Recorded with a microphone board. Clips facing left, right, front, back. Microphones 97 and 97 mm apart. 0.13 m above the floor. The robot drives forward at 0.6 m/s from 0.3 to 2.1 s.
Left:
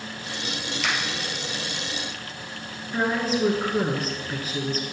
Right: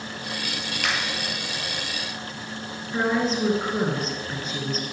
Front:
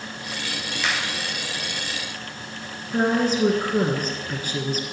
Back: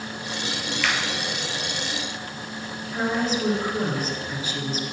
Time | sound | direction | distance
0.8 | a finger snap | 70° right | 2 m
2.9 | a woman speaking | 5° left | 1.7 m